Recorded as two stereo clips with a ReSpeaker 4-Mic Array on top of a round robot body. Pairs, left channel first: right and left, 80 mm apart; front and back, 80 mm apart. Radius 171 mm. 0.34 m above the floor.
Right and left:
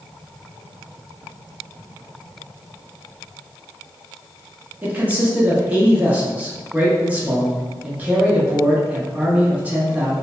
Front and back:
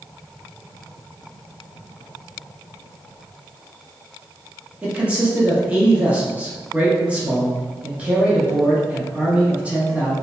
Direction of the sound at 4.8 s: 130° left.